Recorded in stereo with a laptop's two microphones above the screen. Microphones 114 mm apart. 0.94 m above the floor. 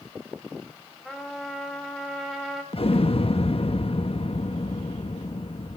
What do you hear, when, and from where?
1.1 s a trumpet: centre (ahead or behind), 6 m
2.7 s an explosion: 60° left (ahead or behind), 1.1 m